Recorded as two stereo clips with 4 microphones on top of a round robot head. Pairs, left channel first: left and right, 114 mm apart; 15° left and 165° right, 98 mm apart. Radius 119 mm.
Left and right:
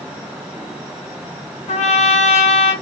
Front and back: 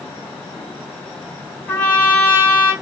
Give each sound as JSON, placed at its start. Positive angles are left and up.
{"t": 1.7, "sound": "a trumpet", "azimuth_deg": 85, "distance_m": 1.6}